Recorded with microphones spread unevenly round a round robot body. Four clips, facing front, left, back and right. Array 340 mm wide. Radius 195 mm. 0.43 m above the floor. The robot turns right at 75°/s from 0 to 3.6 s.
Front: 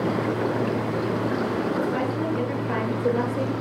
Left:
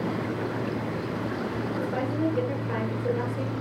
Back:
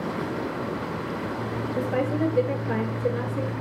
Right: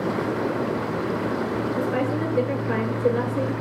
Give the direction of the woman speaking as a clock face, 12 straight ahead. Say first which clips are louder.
Right 3 dB, even; 6 o'clock.